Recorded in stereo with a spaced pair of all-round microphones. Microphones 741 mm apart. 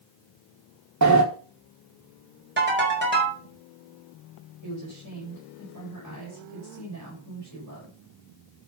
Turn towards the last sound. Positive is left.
turn(degrees=-25)  # may be behind; listen again after turning